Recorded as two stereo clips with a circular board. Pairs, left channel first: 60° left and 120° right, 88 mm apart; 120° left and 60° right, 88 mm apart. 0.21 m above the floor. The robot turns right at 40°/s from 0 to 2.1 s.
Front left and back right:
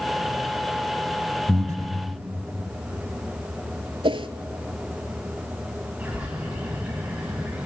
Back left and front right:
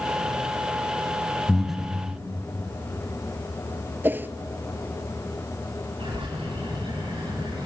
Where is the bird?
45° right, 9.5 m.